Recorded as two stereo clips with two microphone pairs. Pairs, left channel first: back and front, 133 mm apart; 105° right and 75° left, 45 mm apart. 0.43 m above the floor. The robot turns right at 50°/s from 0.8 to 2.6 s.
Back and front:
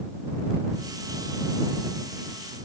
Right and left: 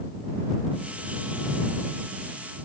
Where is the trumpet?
No trumpet in this recording.